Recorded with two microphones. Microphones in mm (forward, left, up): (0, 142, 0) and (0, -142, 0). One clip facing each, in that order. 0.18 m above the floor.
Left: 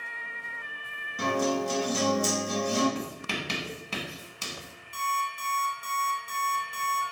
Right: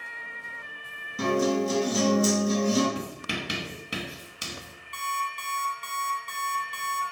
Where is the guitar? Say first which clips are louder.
Right 4 dB; 25° right (ahead or behind), 2 m.